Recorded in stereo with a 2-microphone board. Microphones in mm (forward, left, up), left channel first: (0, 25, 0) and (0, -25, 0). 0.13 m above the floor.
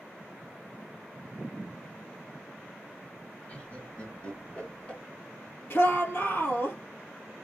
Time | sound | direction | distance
3.5 | laughter | 25° left (ahead or behind) | 1.6 m
5.7 | a shout | 50° left (ahead or behind) | 3 m